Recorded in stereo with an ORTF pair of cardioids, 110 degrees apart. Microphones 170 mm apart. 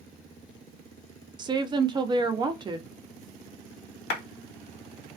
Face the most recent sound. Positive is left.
turn(degrees=70)